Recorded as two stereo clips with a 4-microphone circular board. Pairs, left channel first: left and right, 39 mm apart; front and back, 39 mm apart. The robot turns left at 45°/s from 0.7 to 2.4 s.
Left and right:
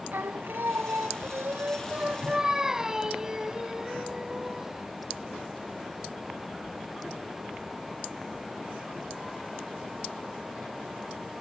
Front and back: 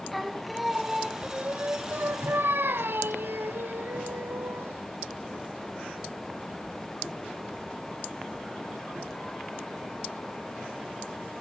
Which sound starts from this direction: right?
Singing, at 0.1 s.